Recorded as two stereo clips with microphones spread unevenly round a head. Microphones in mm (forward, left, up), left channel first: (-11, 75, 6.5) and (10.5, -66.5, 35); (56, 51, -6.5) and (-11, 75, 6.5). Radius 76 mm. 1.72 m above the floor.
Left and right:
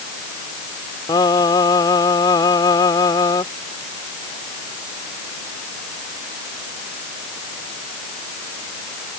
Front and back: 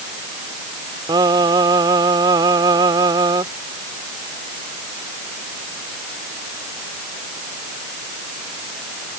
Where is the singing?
170° left.